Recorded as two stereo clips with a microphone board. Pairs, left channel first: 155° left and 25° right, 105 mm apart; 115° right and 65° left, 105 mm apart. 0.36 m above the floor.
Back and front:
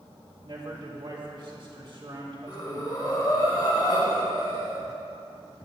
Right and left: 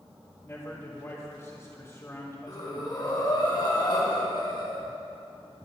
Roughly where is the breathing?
Behind right.